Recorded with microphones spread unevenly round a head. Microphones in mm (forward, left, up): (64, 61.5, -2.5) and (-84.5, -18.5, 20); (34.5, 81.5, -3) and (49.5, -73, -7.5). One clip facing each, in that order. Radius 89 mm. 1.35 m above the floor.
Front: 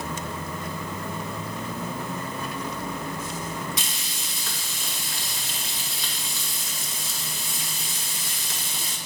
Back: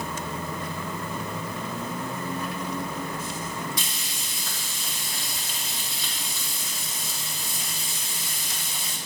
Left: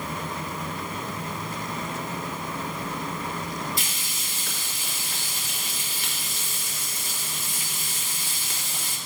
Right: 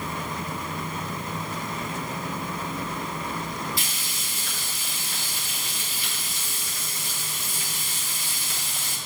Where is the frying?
50° left, 2.5 m.